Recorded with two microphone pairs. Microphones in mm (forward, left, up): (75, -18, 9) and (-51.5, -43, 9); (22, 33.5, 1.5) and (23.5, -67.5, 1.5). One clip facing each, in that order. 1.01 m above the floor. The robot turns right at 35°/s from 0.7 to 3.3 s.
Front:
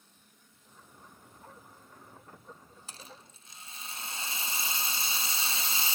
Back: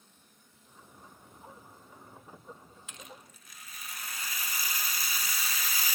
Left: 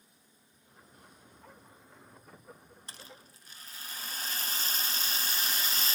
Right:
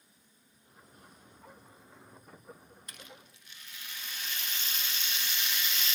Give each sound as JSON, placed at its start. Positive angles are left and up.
{"t": 2.9, "sound": "a rattle", "azimuth_deg": 45}